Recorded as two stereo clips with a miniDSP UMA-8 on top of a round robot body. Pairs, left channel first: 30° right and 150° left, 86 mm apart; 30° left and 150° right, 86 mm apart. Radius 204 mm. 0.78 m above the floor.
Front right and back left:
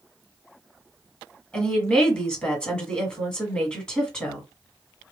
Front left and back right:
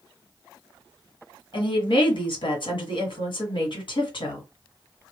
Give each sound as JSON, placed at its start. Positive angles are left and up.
{"t": 1.5, "sound": "a woman speaking", "azimuth_deg": 50, "distance_m": 2.0}